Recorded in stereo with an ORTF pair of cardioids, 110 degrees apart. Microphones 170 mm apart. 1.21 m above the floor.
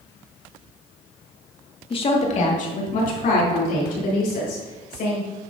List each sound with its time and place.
1.9 s a woman speaking: 30° left, 1.6 m; by 5.2 s 70° left, 5.5 m